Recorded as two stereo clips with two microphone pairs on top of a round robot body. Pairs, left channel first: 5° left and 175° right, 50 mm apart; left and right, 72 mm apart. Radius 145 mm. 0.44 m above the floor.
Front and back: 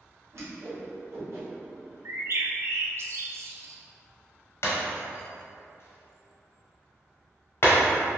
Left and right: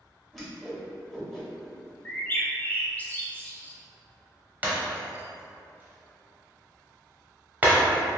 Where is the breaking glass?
25° right, 0.7 m.